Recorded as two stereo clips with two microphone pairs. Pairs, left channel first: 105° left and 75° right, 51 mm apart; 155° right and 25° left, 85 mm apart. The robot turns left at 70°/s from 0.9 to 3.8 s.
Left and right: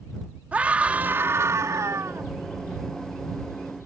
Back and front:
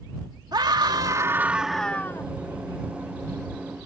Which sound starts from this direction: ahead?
A scream, at 0.5 s.